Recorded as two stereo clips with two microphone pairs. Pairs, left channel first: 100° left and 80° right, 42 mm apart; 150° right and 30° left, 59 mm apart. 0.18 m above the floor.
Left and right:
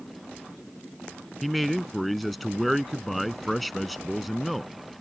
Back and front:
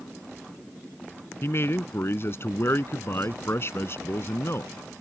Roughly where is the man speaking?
Behind.